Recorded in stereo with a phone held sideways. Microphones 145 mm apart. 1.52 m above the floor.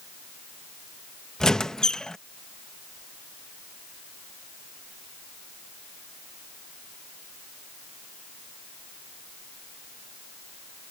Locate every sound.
1.4 s a squeak: 5° left (ahead or behind)